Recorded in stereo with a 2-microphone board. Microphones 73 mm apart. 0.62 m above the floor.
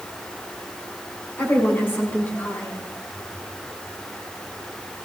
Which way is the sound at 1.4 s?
30° left (ahead or behind).